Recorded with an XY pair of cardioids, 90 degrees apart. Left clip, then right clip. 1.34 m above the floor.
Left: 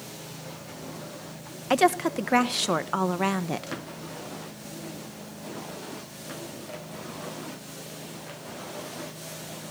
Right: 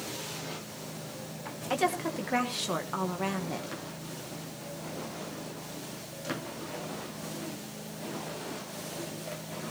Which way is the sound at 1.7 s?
55° left.